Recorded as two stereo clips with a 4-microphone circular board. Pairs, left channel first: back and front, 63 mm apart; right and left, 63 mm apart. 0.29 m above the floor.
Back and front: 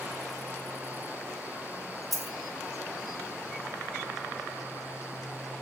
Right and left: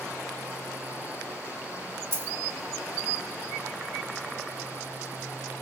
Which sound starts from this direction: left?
A dropped coin, at 2.1 s.